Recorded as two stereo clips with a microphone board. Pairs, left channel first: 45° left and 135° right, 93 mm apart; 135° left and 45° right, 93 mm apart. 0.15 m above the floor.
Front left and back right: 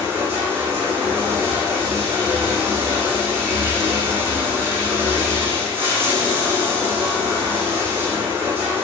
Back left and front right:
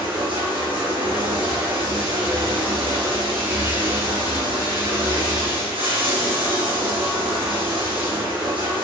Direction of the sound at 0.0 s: 70° right.